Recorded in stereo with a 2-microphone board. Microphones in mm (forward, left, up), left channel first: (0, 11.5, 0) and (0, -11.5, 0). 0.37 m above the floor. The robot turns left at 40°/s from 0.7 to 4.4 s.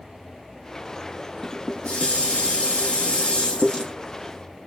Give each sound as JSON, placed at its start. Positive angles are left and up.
{"t": 1.4, "sound": "dishes clattering", "azimuth_deg": 130, "distance_m": 2.5}